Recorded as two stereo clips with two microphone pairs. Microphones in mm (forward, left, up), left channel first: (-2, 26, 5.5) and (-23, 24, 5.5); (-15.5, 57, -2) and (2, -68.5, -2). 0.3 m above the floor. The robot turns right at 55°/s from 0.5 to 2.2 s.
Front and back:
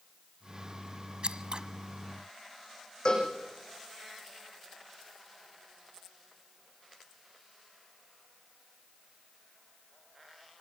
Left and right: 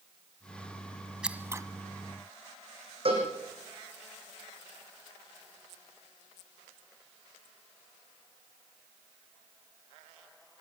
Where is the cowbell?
40° right, 6.5 m.